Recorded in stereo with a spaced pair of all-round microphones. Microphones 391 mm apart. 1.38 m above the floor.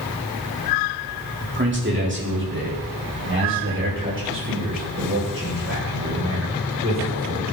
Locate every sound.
1.4 s a man speaking: 25° right (ahead or behind), 4 m; by 7.4 s 35° right (ahead or behind), 8 m